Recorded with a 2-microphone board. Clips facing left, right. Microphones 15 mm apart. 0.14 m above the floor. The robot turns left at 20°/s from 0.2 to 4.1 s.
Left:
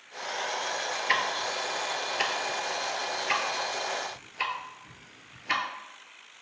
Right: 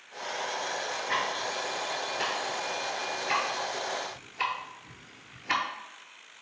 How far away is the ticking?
About 0.6 m.